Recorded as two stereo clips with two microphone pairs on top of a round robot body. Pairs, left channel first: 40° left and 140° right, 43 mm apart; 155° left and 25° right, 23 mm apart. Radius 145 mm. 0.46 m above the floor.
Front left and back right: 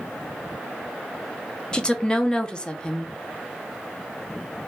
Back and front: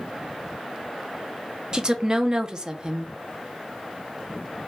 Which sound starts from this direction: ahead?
A woman speaking, at 1.7 s.